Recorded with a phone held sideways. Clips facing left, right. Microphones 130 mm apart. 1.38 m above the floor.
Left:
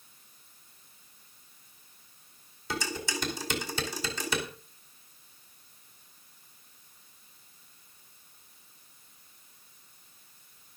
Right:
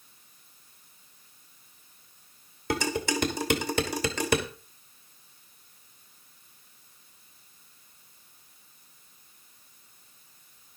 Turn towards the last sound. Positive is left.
turn(degrees=-60)  # may be behind; listen again after turning